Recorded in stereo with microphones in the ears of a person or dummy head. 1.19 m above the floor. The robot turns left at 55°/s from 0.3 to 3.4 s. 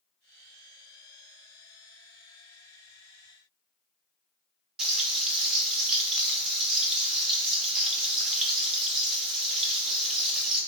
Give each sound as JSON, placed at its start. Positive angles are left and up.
{"t": 4.8, "sound": "frying", "side_deg": -5, "distance_m": 1.1}